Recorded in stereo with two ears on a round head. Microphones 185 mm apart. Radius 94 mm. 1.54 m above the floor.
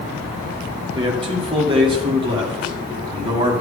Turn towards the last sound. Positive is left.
turn(degrees=-25)  # may be behind; listen again after turning